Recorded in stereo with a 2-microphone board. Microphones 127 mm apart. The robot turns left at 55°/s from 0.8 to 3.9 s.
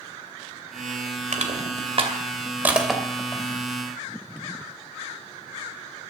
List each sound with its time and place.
1.3 s crushing: 75° right (ahead or behind), 2.5 m; by 3.4 s 25° left (ahead or behind), 2.5 m